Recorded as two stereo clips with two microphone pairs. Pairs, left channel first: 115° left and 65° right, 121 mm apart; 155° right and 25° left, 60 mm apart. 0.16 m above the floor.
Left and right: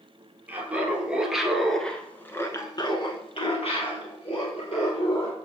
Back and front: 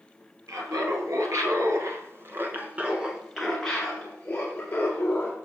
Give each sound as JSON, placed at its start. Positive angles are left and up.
{"t": 0.5, "sound": "laughter", "azimuth_deg": 10, "distance_m": 3.0}